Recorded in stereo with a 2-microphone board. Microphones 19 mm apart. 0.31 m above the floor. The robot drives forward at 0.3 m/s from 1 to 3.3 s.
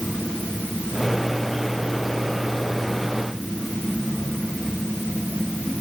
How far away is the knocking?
I don't hear knocking.